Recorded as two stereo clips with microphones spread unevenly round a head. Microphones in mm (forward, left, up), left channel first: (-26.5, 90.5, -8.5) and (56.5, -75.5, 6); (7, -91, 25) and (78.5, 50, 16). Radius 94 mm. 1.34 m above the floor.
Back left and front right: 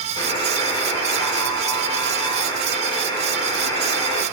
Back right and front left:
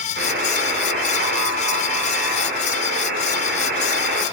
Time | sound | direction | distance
0.2 | a buzzer | 50° left | 1.9 m